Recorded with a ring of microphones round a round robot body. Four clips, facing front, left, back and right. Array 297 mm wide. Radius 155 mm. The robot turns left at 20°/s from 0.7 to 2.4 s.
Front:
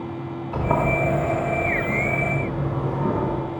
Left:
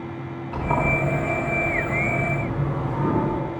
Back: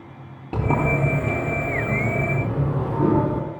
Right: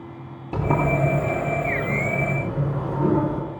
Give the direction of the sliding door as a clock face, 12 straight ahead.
5 o'clock.